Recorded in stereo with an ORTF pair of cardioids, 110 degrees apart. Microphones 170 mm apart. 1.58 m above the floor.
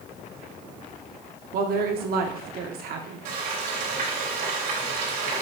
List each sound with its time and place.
1.5 s a woman speaking: 65° right, 0.9 m
3.2 s frying: 70° right, 2.5 m